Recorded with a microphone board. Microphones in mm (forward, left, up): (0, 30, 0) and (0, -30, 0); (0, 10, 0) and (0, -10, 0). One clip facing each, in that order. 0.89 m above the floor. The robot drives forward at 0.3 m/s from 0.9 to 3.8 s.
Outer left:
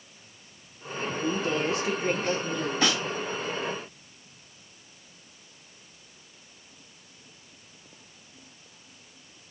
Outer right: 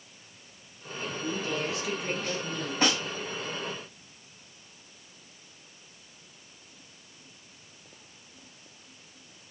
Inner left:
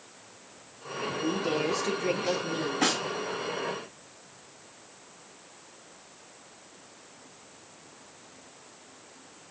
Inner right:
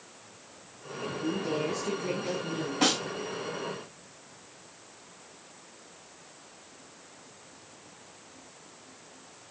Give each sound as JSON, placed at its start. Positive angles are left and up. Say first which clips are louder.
{"t": 1.2, "sound": "a woman speaking", "louder": "outer left 5 dB, inner left 2 dB", "side_deg": 30, "distance_m": 0.7}
{"t": 2.8, "sound": "a snare drum", "louder": "outer right 1 dB, inner right 2 dB", "side_deg": -40, "distance_m": 3.5}